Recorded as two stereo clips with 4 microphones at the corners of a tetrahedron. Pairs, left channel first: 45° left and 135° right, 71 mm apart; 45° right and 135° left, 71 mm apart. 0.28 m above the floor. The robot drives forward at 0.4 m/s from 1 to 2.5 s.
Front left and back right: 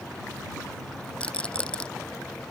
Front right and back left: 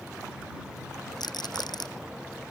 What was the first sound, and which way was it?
A rattle, 30° right.